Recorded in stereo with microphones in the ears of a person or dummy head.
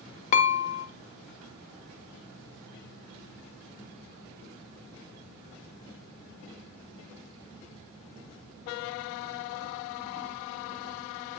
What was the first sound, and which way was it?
Dishes clattering, 40° left (ahead or behind).